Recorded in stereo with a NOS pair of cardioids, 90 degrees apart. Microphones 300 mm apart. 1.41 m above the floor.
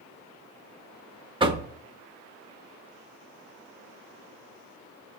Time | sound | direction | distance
1.4 | knocking | 15° right | 1.1 m